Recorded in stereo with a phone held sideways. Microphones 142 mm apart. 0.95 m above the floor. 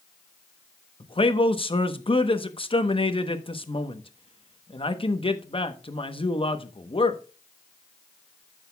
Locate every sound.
1.0 s a man speaking: 40° left (ahead or behind), 1.0 m